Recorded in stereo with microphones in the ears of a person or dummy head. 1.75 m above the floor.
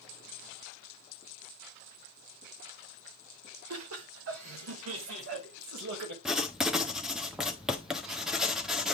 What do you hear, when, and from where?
3.7 s laughter: 85° right, 2 m; by 6.2 s 70° right (ahead or behind), 3 m
6.2 s writing: 5° right (ahead or behind), 1.2 m